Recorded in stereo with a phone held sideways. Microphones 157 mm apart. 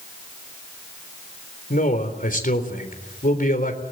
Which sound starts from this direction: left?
A man speaking, at 1.7 s.